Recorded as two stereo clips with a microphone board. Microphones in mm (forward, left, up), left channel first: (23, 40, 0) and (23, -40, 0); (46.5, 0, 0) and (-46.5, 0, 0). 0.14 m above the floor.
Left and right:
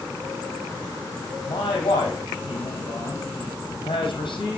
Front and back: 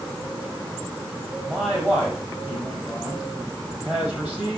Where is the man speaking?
105° left, 4 m.